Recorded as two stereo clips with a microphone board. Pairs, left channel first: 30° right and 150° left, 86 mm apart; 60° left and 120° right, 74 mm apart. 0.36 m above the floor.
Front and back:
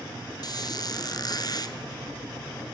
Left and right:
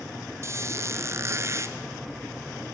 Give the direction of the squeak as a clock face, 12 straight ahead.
2 o'clock.